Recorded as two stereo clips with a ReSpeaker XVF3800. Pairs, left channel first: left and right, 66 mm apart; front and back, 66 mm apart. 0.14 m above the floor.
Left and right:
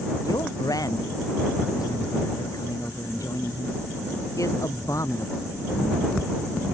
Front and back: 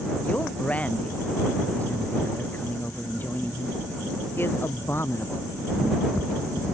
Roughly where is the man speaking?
Left.